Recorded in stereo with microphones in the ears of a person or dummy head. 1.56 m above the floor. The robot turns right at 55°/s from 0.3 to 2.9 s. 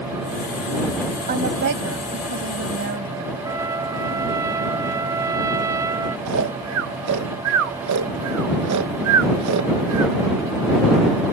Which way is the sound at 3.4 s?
20° right (ahead or behind).